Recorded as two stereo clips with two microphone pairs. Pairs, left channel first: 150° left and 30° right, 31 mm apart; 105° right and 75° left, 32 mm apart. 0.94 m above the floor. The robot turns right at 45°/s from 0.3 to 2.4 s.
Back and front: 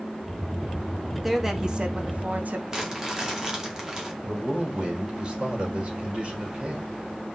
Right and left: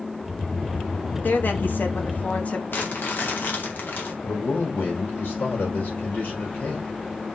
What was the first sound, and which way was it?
A woman speaking, 115° right.